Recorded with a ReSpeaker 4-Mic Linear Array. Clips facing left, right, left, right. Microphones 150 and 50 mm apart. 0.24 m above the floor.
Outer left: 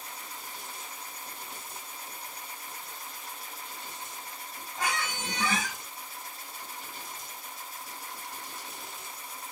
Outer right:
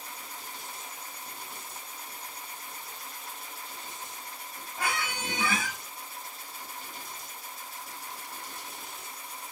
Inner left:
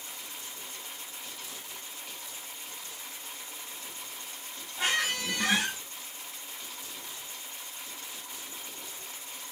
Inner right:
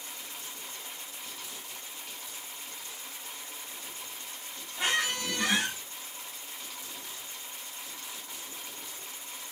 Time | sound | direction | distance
4.8 | a squeak | 10° right (ahead or behind) | 2.5 m